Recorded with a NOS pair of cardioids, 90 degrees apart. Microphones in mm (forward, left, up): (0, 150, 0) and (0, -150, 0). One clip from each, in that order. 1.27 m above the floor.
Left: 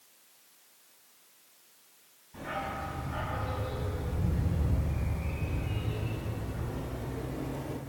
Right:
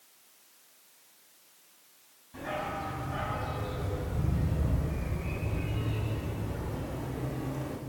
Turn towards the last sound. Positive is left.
turn(degrees=-10)